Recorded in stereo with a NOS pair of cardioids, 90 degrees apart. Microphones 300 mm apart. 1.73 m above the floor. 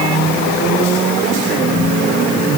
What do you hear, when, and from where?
Only background noise.